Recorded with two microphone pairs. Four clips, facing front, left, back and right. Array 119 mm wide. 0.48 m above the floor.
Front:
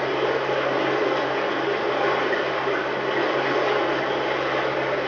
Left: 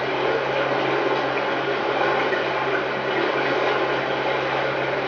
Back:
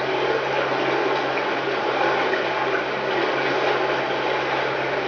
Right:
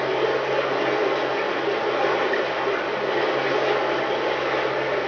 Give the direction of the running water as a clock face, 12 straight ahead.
7 o'clock.